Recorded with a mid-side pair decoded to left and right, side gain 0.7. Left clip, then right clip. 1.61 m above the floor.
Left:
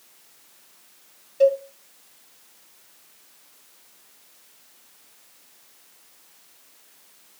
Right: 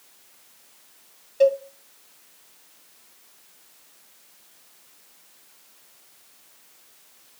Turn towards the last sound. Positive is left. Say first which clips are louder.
# left 1 dB
turn(degrees=-15)